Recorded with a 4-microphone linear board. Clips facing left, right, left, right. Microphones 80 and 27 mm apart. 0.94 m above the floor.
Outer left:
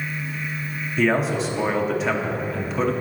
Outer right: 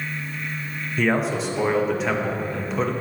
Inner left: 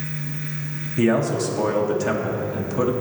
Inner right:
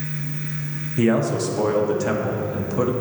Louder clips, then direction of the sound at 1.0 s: Outer left 1 dB, even; centre (ahead or behind).